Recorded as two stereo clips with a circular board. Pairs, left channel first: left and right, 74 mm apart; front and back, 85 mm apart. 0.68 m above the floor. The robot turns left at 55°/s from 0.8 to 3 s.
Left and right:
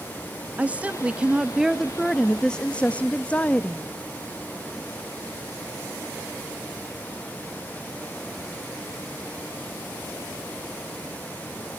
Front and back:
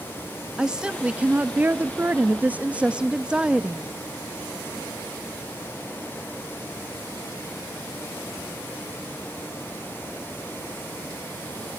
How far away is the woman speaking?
About 0.5 m.